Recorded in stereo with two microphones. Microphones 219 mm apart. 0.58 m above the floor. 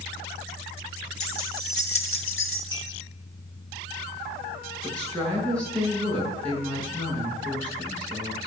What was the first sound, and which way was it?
Keys jangling, 80° left.